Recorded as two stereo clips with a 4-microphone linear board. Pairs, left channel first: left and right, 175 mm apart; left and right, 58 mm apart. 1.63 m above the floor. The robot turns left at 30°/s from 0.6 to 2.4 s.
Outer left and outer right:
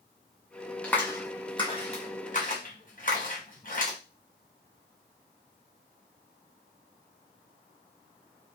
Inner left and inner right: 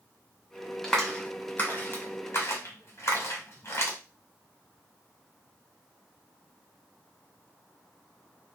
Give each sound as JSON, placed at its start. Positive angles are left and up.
{"t": 0.8, "sound": "a clap", "side_deg": 5, "distance_m": 1.2}